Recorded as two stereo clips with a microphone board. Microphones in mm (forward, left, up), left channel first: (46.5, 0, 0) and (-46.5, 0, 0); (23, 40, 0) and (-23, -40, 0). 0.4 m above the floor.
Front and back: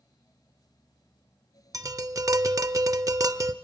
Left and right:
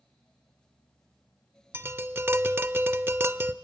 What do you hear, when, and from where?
1.7 s tapping: 170° right, 0.6 m